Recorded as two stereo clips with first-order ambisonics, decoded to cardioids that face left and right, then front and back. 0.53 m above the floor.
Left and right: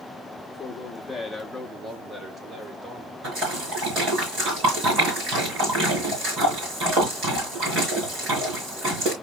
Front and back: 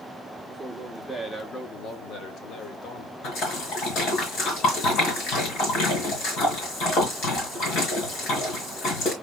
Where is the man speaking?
115° left, 0.8 m; by 3.1 s 30° right, 1.4 m.